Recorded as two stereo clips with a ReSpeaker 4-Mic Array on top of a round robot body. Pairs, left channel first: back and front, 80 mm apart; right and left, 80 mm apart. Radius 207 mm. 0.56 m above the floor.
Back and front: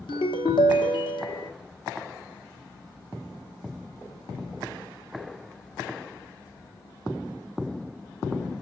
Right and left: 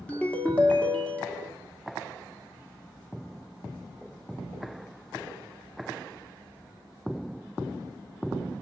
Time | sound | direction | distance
0.1 | a ringtone | 165° right | 1.1 m